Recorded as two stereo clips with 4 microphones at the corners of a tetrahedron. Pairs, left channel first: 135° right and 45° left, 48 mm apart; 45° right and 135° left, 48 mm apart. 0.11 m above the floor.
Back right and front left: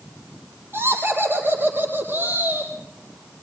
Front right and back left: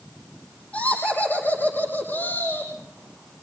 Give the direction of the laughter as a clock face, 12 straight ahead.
12 o'clock.